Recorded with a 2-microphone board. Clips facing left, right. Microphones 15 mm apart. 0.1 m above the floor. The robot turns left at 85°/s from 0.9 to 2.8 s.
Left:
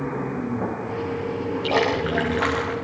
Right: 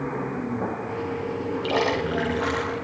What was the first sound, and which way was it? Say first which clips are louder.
A splash: left 2 dB; 165° left.